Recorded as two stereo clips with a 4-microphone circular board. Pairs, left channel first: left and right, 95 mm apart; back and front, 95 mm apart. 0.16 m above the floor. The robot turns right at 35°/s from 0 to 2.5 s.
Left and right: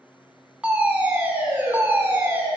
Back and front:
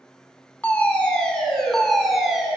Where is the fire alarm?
140° right, 2 m; by 2.5 s 75° right, 2 m.